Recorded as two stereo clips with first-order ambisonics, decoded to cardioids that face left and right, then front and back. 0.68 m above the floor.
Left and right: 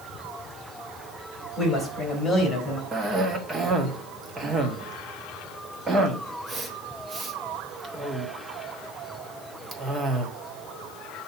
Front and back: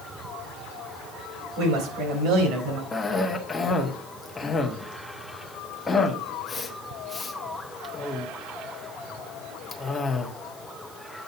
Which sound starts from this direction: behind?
A woman speaking, at 1.6 s.